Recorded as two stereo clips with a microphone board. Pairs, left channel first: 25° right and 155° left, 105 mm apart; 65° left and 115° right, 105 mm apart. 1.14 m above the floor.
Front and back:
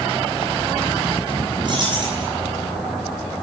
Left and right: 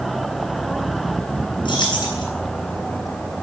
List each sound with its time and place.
1.6 s keys jangling: 115° left, 9.5 m